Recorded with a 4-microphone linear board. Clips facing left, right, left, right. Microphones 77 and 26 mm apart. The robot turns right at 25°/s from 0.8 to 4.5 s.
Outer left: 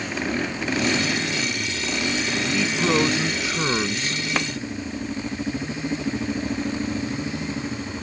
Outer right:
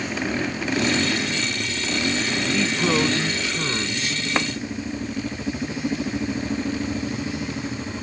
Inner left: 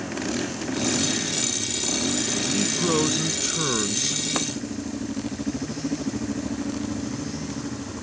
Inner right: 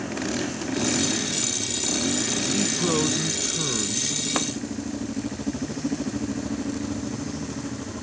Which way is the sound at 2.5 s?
Straight ahead.